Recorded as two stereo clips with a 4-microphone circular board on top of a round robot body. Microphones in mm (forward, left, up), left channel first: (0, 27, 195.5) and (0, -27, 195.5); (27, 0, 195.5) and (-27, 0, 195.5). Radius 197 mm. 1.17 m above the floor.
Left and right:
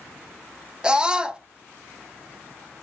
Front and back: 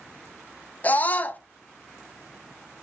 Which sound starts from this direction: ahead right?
A scream, at 0.8 s.